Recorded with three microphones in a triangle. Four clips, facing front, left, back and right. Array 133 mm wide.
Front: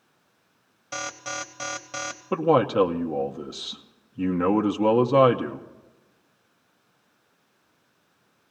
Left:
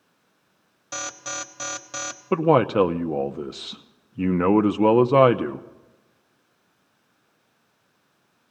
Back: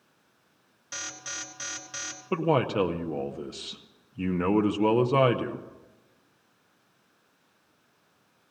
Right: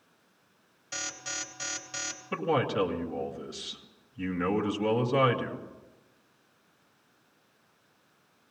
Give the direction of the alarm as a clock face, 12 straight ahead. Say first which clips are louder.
Left 7 dB, front 8 dB; 11 o'clock.